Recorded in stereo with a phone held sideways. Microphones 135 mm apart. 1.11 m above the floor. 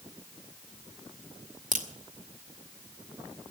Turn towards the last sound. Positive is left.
turn(degrees=-75)  # may be behind; listen again after turning